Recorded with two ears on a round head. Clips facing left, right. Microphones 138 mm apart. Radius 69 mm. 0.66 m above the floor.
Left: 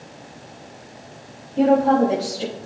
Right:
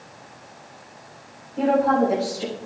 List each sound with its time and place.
1.6 s a woman speaking: 30° left (ahead or behind), 4 m